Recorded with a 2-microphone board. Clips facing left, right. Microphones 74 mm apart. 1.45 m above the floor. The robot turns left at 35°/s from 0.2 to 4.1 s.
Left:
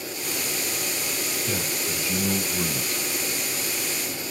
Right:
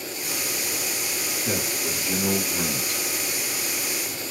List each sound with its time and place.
1.4 s a man speaking: 60° right, 1.6 m; by 3.0 s 115° right, 1.6 m